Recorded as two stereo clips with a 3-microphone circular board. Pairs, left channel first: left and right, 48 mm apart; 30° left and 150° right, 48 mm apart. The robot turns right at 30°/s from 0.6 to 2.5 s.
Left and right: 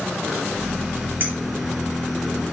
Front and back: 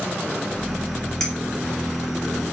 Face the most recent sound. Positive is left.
turn(degrees=-10)